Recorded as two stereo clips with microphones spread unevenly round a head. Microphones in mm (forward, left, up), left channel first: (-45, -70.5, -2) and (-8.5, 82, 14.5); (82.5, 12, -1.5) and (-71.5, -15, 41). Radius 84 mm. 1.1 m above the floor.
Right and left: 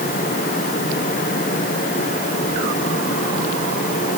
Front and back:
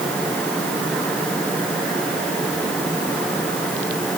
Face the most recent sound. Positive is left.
No sound to turn to.